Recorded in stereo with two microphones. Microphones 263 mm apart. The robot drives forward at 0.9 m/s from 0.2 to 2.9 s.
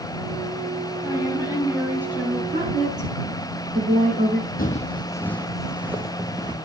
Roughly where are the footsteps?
Left.